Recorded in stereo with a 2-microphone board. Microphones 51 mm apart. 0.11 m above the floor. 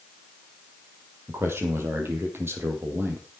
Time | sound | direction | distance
1.3 | a man speaking | 50° right (ahead or behind) | 3.5 m